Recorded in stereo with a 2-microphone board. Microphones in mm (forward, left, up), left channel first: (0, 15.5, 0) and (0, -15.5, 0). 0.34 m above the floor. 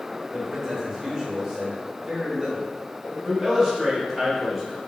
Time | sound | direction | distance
0.3 | a man speaking | 25° right (ahead or behind) | 0.9 m
3.2 | a man speaking | 10° right (ahead or behind) | 0.9 m